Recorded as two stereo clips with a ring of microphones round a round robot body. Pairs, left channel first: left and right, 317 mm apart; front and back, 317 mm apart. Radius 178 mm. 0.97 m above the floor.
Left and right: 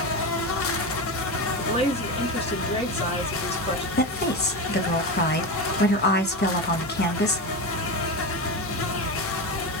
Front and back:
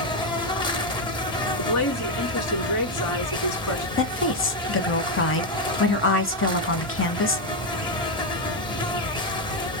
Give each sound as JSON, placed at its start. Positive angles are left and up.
{"t": 0.0, "sound": "an insect", "azimuth_deg": 70, "distance_m": 0.7}
{"t": 1.6, "sound": "a woman speaking", "azimuth_deg": 20, "distance_m": 2.5}
{"t": 4.0, "sound": "a woman speaking", "azimuth_deg": 40, "distance_m": 1.3}